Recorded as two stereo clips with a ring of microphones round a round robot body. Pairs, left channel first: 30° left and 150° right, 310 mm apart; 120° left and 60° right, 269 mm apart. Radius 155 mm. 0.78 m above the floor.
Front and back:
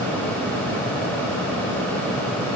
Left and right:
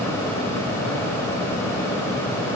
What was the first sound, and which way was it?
Only background noise.